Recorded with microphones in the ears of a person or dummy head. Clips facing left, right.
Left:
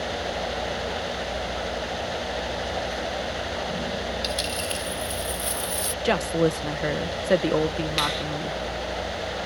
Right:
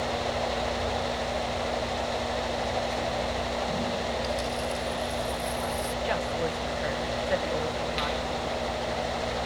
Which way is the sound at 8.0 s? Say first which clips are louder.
Left 1 dB; 75° left (ahead or behind).